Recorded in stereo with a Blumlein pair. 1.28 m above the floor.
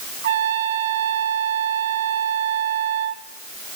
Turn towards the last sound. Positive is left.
turn(degrees=-60)